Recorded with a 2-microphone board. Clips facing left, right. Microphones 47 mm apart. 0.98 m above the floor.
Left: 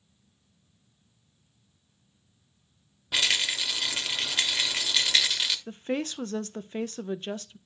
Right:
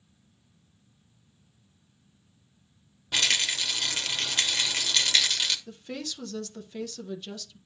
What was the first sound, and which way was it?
A rattle, 5° left (ahead or behind).